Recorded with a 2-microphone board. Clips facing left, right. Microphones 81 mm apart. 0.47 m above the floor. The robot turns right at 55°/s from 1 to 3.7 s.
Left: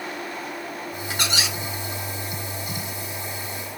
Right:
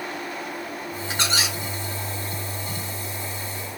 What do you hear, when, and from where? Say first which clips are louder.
1.1 s a squeak: right 1 dB; 20° right (ahead or behind), 1.6 m; by 1.6 s 45° right (ahead or behind), 1.6 m